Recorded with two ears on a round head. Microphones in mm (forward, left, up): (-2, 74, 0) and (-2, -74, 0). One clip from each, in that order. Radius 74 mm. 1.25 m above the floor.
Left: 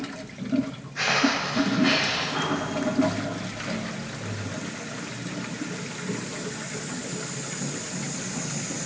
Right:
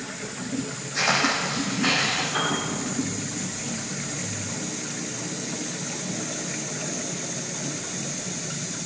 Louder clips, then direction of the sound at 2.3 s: Right 2 dB; 75° right (ahead or behind).